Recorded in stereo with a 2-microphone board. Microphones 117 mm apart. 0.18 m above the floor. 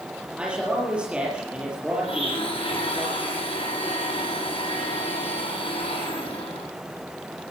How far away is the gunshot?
No gunshot in this recording.